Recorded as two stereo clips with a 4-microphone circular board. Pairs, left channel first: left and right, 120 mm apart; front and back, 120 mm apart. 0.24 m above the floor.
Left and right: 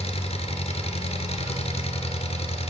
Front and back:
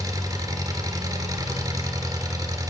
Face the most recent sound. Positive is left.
turn(degrees=120)